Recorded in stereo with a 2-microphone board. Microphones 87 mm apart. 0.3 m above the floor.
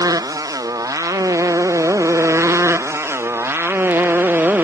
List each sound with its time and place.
0.0 s a motorcycle: 45° right (ahead or behind); by 4.7 s 20° right (ahead or behind)